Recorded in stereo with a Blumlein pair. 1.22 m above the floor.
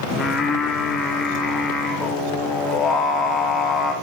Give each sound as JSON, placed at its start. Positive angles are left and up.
{"t": 0.1, "sound": "singing", "azimuth_deg": 25, "distance_m": 1.9}